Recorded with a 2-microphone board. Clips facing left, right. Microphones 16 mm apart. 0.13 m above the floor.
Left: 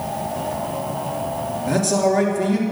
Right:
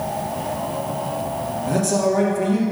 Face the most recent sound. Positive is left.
turn(degrees=25)  # may be behind; listen again after turning